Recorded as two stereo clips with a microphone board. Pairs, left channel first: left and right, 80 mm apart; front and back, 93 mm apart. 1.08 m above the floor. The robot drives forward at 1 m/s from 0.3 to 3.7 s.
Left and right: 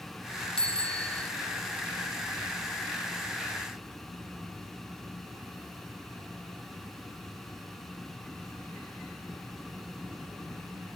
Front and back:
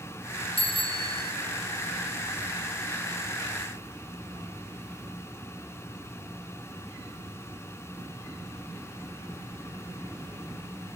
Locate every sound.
0.6 s a bicycle bell: 10° left, 2.5 m; by 1.3 s 15° left, 1.6 m